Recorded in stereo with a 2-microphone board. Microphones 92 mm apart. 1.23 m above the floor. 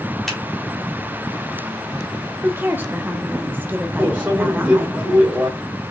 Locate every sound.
0.3 s a finger snap: centre (ahead or behind), 2.5 m
2.4 s a woman speaking: 20° right (ahead or behind), 1.0 m
4.0 s a microwave: 20° right (ahead or behind), 3 m